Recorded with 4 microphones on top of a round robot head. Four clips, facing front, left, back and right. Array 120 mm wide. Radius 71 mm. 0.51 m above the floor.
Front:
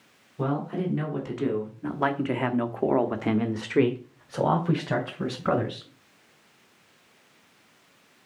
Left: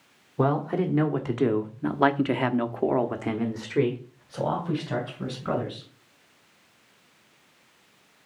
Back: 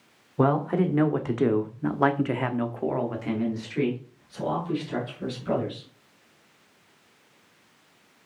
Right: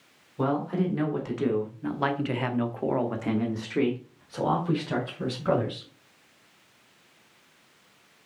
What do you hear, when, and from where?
0.4 s a man speaking: 155° left, 1.9 m; by 5.9 s 5° right, 3 m